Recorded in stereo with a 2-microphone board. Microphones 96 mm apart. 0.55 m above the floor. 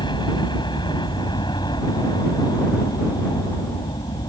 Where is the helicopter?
55° left (ahead or behind).